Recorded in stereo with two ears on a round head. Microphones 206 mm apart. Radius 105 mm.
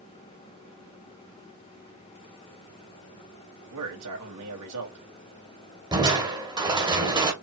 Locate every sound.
3.7 s a man speaking: 75° right (ahead or behind), 2 m
5.9 s crushing: 20° right (ahead or behind), 1.5 m